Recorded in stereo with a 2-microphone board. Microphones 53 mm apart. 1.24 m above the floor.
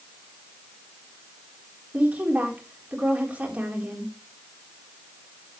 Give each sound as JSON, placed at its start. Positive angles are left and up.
{"t": 1.9, "sound": "a woman speaking", "side_deg": -30, "distance_m": 4.0}